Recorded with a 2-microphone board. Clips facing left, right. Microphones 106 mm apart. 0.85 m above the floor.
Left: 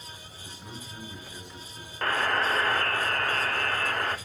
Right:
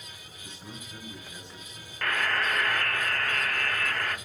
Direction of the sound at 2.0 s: 30° left (ahead or behind).